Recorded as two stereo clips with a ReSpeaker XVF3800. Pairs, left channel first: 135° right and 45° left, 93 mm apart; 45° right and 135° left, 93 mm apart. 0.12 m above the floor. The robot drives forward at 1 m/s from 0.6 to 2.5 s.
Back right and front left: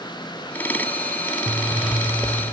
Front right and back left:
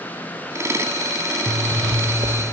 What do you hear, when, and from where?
1.5 s a zipper: 115° left, 1.9 m; by 2.4 s 135° left, 2.5 m